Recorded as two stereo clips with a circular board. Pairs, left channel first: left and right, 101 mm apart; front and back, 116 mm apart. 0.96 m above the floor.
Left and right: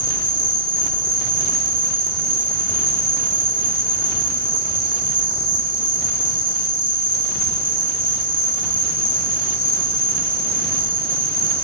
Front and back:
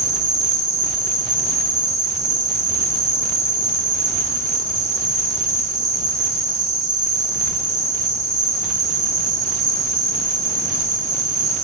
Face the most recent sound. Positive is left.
turn(degrees=-120)